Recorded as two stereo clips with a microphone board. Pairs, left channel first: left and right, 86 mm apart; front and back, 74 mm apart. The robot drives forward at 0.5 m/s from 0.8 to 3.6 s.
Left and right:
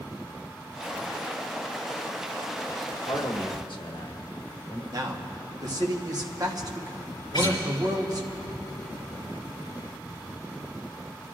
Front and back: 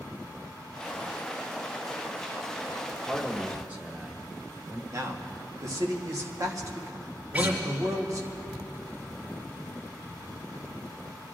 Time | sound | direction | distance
3.1 | a man speaking | 100° left | 1.4 m
4.9 | a man speaking | 135° right | 1.3 m
7.3 | a guitar | 115° left | 4 m